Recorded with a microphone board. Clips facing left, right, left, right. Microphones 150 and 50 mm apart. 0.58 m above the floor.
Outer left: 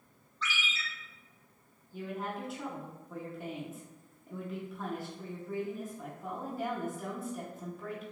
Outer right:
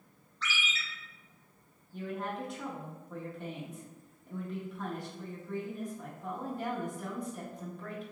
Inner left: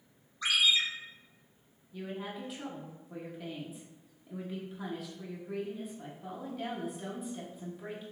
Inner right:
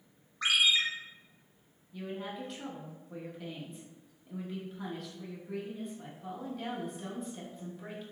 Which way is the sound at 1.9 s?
5° left (ahead or behind).